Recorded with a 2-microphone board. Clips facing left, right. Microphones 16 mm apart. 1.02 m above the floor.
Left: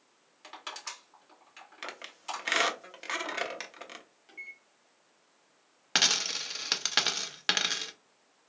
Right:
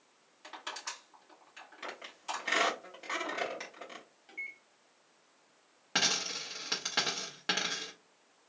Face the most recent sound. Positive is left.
turn(degrees=55)  # may be behind; listen again after turning